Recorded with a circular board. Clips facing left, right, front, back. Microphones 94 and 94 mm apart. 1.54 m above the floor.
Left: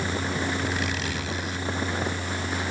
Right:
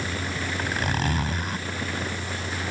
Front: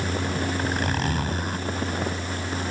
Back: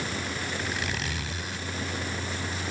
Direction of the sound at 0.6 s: 45° right.